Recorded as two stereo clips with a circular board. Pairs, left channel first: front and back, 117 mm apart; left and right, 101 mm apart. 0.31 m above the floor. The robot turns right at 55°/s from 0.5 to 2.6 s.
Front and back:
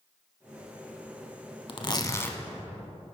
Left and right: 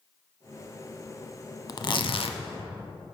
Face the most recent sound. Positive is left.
turn(degrees=90)